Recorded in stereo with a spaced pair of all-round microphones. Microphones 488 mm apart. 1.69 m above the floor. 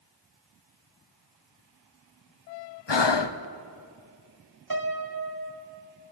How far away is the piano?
About 1.4 m.